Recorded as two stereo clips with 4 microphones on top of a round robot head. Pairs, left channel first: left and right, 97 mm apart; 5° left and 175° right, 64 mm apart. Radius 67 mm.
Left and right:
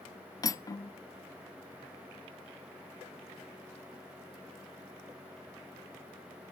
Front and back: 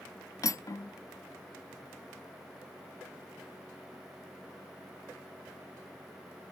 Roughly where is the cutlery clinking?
Ahead left.